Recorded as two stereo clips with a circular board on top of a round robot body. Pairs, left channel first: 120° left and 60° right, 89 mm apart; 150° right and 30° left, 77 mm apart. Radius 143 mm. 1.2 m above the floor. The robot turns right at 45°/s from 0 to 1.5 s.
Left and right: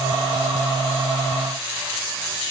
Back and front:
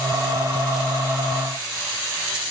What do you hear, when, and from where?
Only background noise.